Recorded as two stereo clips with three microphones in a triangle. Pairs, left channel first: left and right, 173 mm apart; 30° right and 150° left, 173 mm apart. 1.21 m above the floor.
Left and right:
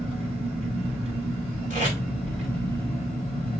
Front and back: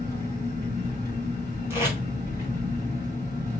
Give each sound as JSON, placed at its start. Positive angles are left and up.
{"t": 0.0, "sound": "an engine running", "azimuth_deg": -145, "distance_m": 4.0}
{"t": 1.7, "sound": "tape being pulled", "azimuth_deg": -135, "distance_m": 2.0}